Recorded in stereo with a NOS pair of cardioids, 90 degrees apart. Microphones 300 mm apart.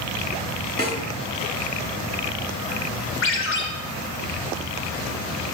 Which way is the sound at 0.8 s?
30° left.